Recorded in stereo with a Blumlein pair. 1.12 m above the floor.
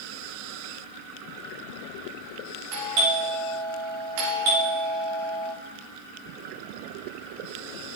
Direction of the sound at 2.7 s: 45° right.